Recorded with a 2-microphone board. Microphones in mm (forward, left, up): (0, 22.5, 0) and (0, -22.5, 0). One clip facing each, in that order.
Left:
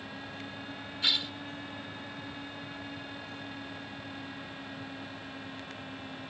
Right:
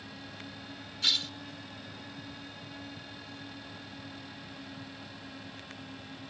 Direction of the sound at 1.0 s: 15° left (ahead or behind).